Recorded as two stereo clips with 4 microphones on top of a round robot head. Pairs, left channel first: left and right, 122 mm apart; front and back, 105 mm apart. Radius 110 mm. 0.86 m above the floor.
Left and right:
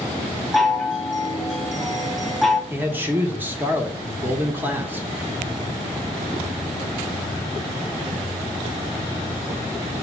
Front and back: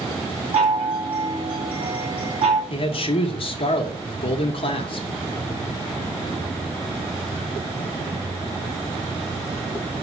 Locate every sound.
0.5 s a chime: straight behind, 1.7 m
2.7 s a man speaking: 15° right, 0.9 m